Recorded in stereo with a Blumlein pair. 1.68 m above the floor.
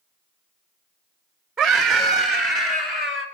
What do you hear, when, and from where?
1.6 s a scream: 15° right, 0.8 m; by 3.3 s 35° left, 1.3 m